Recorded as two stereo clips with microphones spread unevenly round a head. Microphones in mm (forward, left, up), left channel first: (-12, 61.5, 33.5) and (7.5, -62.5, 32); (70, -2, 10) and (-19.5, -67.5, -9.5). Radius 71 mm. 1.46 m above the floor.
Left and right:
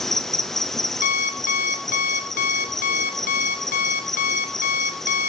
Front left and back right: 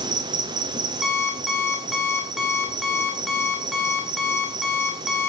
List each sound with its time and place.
0.0 s an insect: 175° right, 0.9 m
1.0 s an alarm clock: 120° left, 2 m